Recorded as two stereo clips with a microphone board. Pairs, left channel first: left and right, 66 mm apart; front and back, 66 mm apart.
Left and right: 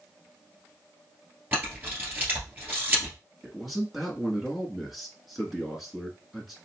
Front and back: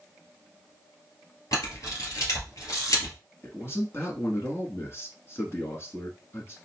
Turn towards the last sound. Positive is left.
turn(degrees=-5)